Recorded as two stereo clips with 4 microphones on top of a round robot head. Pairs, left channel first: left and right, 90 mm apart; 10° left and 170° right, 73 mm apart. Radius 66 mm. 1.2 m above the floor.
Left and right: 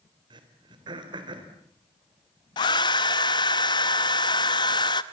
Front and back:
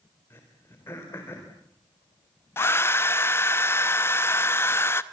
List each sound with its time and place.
0.3 s throat clearing: 60° right, 4 m
2.6 s a hair dryer: 60° left, 0.8 m